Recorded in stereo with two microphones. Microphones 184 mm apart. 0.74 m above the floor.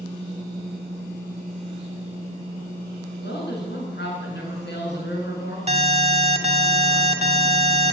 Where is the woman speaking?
70° left (ahead or behind), 7 m.